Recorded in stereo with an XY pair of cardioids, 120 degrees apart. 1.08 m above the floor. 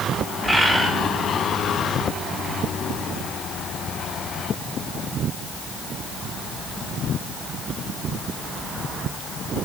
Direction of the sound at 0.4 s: 5° left.